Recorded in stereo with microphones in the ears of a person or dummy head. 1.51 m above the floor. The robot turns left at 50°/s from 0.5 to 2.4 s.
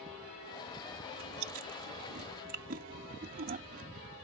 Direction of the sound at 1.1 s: 70° right (ahead or behind).